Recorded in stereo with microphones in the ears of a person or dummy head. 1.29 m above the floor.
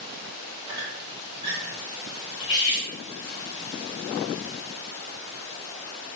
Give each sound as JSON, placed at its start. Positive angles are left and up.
{"t": 0.7, "sound": "a squeak", "side_deg": -30, "distance_m": 1.1}
{"t": 2.4, "sound": "cutlery clinking", "side_deg": 25, "distance_m": 1.5}